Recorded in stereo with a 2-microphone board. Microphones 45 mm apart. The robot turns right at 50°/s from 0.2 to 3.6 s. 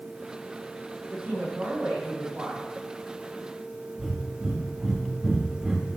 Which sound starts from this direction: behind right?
A woman speaking, at 1.1 s.